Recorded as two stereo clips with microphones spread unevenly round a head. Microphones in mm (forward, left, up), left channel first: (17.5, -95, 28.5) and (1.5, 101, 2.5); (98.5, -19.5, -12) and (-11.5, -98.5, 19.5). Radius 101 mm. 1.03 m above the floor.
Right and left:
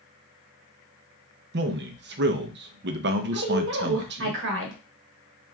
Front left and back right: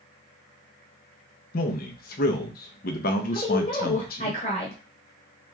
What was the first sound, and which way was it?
A man speaking, 60° left.